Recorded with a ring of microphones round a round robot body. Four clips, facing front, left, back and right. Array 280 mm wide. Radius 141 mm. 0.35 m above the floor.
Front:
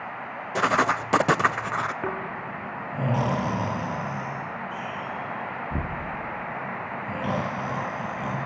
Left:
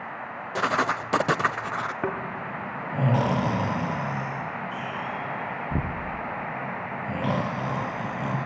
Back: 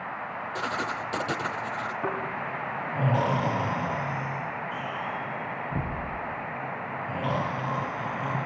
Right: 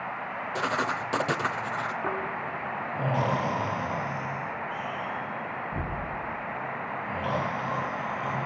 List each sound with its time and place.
0.6 s writing: 25° left, 0.7 m
2.0 s snoring: 70° left, 3.5 m